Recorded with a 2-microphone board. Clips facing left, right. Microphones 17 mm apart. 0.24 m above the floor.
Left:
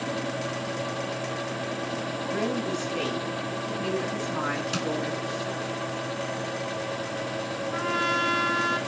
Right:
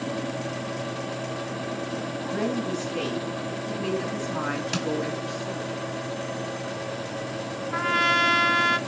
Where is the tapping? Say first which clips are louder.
Right 1 dB; 20° right (ahead or behind), 1.1 m.